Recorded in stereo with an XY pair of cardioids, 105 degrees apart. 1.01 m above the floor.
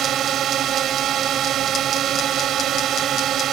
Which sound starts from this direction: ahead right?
A drone, at 0.0 s.